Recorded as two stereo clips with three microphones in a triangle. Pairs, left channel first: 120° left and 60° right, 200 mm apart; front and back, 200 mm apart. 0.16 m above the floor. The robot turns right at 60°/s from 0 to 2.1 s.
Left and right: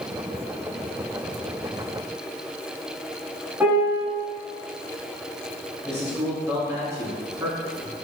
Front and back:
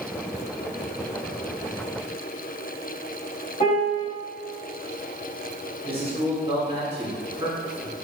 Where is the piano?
10° left, 1.0 m.